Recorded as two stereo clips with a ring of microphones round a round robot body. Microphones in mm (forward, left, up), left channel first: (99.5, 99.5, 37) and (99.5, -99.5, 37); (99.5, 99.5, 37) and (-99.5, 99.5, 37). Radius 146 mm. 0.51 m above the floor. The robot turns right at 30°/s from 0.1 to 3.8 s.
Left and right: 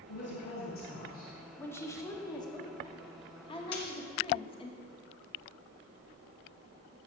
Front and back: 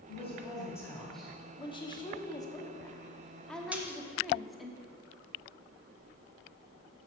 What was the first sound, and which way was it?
A woman speaking, 60° left.